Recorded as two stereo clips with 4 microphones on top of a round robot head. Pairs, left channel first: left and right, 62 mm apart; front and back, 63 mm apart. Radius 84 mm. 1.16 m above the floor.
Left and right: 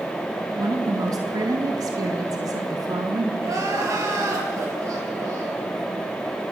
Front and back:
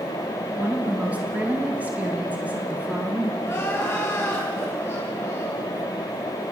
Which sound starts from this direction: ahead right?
Crying, at 3.4 s.